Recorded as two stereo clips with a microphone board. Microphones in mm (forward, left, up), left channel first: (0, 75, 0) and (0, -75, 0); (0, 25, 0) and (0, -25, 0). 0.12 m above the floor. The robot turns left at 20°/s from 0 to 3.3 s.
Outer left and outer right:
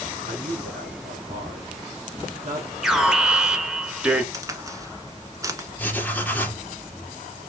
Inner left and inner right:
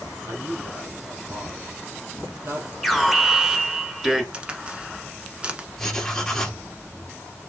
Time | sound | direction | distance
0.3 | a man speaking | 55° right (ahead or behind) | 3 m
2.8 | an alarm | centre (ahead or behind) | 1.3 m
4.3 | a crack | 20° right (ahead or behind) | 1.2 m
5.8 | writing | 10° left (ahead or behind) | 2.5 m